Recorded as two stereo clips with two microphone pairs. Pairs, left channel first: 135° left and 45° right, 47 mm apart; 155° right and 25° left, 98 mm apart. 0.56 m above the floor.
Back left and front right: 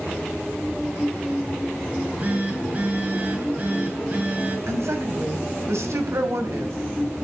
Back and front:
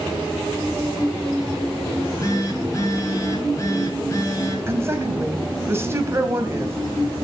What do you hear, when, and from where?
1.9 s a phone buzzing: 100° right, 3 m
4.7 s a woman speaking: 35° right, 3 m